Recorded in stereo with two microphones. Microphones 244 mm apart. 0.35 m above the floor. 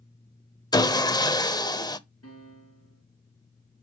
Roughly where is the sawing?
Centre.